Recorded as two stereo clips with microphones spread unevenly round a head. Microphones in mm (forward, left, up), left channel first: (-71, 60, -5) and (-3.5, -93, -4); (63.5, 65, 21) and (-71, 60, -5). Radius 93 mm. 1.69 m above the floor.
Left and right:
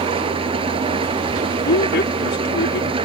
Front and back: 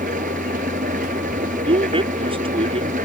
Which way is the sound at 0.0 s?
125° right.